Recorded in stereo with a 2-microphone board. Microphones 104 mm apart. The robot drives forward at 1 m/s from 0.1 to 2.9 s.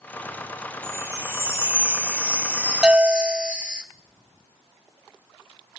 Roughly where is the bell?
Centre.